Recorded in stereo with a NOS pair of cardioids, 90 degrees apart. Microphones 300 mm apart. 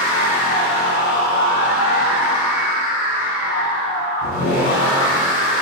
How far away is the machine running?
About 1.1 m.